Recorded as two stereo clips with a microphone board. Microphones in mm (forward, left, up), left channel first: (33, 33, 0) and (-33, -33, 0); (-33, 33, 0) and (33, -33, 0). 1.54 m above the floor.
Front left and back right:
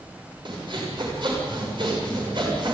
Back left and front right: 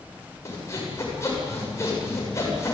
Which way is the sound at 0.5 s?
165° right.